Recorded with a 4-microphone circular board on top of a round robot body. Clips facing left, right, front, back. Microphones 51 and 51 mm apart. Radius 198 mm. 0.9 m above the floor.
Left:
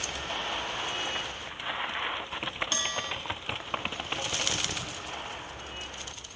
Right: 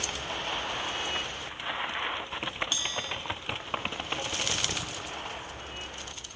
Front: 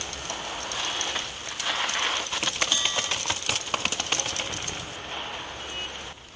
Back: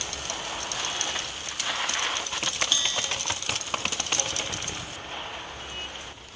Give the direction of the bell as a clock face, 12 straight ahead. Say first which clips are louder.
Left 1 dB, front 1 dB; 10 o'clock.